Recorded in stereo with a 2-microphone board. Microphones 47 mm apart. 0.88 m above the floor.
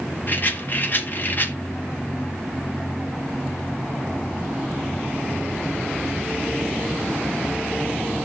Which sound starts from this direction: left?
A rattle, at 0.3 s.